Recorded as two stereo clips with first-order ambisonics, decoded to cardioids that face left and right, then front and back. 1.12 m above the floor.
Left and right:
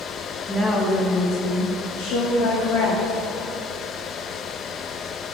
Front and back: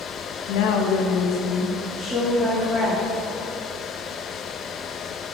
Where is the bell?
No bell in this recording.